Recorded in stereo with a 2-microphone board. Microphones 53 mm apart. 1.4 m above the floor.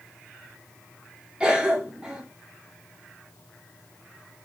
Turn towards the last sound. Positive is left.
turn(degrees=-20)  # may be behind; listen again after turning